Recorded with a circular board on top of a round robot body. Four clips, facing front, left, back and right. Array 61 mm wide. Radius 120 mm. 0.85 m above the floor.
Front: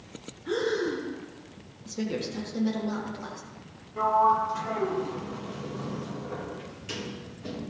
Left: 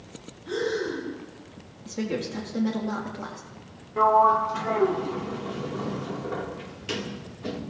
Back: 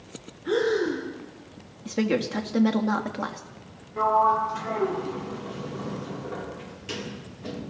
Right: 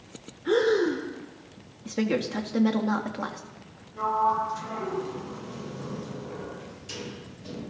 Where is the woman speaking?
150° right, 1.9 m.